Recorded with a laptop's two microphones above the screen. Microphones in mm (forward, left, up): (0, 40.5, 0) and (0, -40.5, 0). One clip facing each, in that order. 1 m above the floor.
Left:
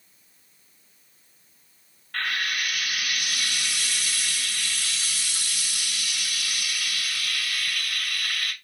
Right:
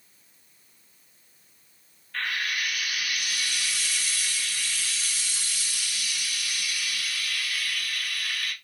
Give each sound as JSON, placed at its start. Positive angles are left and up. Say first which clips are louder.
{"t": 2.1, "sound": "frying", "louder": "left 2 dB", "side_deg": 60, "distance_m": 0.9}